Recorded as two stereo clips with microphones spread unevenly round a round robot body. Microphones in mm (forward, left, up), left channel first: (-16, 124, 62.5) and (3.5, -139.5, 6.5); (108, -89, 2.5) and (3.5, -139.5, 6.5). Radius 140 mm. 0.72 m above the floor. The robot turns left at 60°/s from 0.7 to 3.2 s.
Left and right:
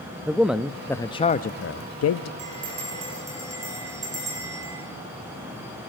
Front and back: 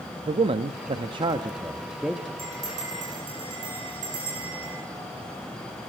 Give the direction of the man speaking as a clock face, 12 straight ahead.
5 o'clock.